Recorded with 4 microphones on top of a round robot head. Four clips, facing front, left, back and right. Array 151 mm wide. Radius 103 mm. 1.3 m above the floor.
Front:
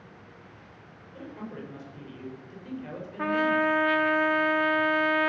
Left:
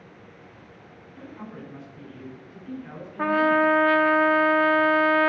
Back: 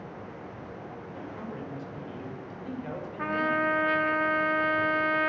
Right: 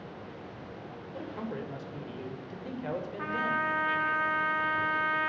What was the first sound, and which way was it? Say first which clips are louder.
A man speaking: right 3 dB, front 1 dB; 90° right.